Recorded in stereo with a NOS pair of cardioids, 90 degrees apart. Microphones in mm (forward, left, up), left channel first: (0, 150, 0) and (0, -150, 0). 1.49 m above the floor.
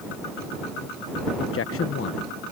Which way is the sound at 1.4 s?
45° left.